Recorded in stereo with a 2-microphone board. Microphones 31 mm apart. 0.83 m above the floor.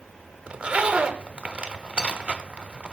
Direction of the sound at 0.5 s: 35° right (ahead or behind).